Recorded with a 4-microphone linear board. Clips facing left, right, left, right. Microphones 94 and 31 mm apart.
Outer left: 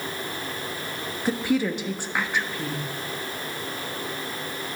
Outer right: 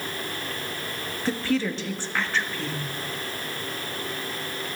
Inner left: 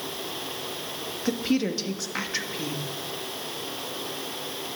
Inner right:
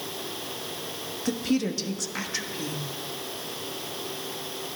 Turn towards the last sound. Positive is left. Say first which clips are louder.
# outer left 2 dB, inner left 1 dB
turn(degrees=15)  # may be behind; listen again after turning